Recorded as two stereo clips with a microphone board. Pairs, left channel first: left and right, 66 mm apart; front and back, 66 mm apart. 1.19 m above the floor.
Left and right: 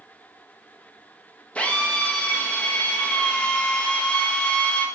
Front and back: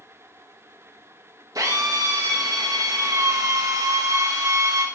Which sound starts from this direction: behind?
A drill, at 1.6 s.